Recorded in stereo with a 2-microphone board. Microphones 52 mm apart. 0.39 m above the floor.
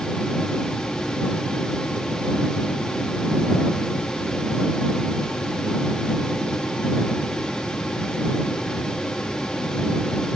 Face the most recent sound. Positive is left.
No sound to turn to.